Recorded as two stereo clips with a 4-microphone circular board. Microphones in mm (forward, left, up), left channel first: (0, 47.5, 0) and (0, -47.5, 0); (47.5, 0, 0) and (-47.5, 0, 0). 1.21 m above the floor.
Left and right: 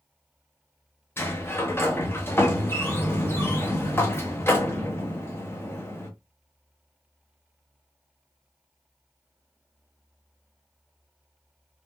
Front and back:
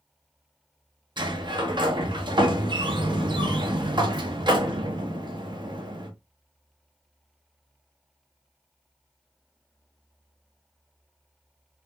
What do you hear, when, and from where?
1.2 s a sliding door: 155° left, 0.6 m